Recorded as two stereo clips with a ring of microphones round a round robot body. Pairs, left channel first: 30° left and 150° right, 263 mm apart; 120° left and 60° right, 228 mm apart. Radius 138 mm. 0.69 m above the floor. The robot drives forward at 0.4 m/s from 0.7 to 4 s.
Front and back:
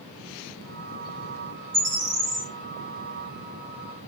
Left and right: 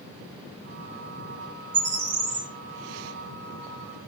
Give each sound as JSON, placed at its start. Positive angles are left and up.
{"t": 1.7, "sound": "a bird", "azimuth_deg": -120, "distance_m": 2.5}